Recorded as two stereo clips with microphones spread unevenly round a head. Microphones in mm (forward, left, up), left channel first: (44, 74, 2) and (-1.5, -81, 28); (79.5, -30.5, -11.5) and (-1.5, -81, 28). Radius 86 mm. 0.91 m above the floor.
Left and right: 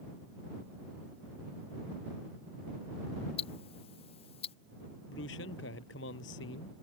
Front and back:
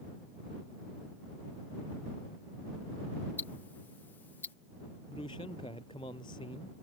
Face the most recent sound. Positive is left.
turn(degrees=95)